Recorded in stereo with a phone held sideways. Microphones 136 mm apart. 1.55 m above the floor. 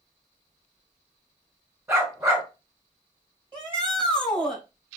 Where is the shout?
35° right (ahead or behind), 2.0 m.